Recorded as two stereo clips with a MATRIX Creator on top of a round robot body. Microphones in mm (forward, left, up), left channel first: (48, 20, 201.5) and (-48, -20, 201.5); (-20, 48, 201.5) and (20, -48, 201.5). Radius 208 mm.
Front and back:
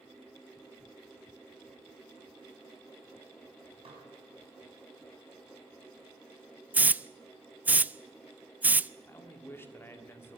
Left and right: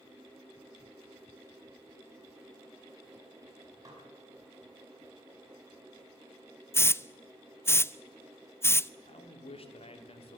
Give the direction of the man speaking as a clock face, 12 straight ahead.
9 o'clock.